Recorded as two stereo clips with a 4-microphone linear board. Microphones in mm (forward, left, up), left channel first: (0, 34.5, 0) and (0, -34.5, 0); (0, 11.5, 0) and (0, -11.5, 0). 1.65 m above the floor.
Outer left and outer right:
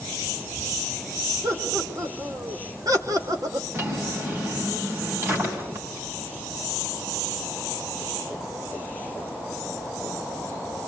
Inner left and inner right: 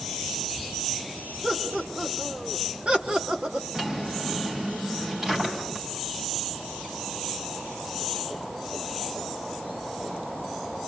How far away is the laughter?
About 5 m.